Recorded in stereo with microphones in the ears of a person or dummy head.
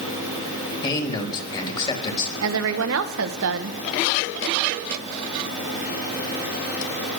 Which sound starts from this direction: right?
A woman speaking, at 2.4 s.